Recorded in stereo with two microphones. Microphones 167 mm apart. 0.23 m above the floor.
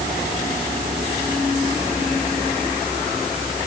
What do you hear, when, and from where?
Only background noise.